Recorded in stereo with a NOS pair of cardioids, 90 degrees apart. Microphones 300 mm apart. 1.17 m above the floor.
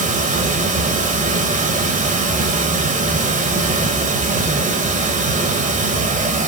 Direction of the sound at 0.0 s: 25° right.